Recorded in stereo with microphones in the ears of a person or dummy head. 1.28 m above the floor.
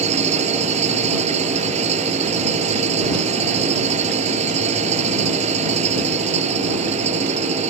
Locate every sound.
0.0 s an engine running: 40° right (ahead or behind)